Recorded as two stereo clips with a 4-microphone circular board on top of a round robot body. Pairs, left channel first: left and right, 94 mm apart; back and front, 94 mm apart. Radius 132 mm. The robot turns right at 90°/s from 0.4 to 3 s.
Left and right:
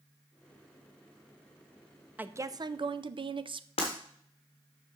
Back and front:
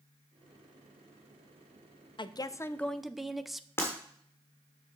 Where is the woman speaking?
160° right, 0.6 m; by 3.7 s 90° right, 0.6 m.